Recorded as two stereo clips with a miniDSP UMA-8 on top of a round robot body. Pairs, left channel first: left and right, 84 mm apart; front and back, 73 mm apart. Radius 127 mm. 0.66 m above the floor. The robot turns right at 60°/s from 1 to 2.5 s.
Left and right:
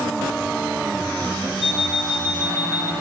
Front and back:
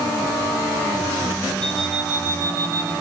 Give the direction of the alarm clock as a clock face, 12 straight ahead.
9 o'clock.